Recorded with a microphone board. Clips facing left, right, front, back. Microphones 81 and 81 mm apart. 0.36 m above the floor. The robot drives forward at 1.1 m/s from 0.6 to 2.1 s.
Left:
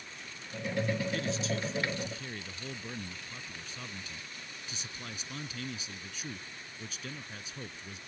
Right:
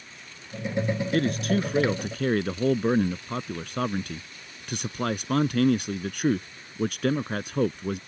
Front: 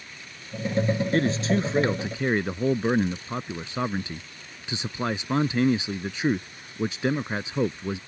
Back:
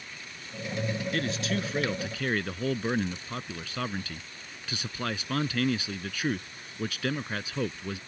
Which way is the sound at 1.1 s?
55° right.